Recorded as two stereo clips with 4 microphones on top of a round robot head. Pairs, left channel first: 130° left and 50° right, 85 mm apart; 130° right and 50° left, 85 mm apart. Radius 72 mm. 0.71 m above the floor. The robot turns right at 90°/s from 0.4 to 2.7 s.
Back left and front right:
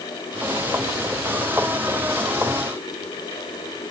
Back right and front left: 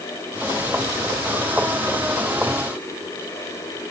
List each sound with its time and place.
Only background noise.